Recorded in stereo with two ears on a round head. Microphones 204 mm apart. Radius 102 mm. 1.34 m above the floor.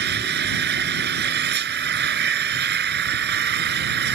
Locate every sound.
0.0 s an engine running: 45° right (ahead or behind)